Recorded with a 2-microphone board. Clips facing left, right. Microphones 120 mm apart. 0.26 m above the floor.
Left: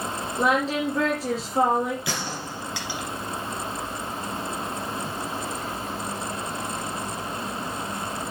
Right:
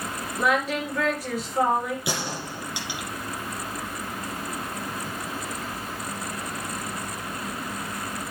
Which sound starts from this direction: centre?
A gunshot, at 2.1 s.